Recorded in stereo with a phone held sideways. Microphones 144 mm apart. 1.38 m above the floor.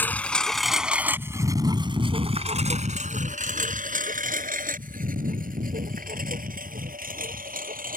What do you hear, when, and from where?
0.0 s a lawn mower: 15° left (ahead or behind); by 8.0 s 80° right